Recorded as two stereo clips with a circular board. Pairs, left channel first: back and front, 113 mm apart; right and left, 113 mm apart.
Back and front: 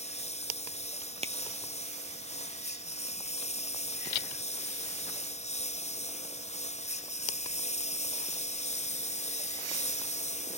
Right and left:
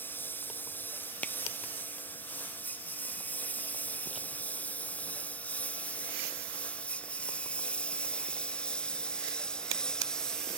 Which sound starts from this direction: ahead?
A finger snap, at 1.2 s.